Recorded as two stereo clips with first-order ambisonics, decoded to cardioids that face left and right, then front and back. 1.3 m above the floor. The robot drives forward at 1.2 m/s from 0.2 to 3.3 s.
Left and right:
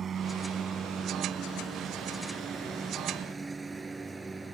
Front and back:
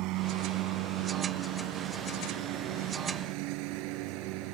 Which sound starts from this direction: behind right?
A lawn mower, at 0.0 s.